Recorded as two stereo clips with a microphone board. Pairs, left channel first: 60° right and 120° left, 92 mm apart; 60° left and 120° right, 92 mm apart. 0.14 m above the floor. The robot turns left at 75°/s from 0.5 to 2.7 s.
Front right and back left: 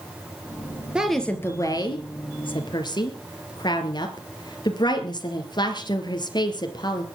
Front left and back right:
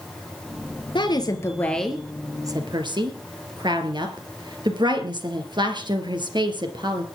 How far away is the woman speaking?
About 2.5 m.